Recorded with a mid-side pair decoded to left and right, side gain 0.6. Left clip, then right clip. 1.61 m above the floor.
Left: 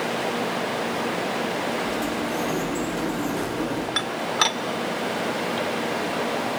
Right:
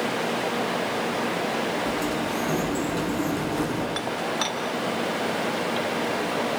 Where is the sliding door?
20° right, 8.5 m.